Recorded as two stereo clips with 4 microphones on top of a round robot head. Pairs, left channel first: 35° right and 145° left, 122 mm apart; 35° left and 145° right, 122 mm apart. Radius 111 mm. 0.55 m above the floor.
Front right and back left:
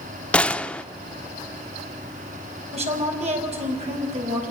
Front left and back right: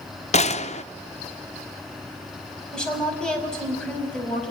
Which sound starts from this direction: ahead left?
A gunshot, at 0.3 s.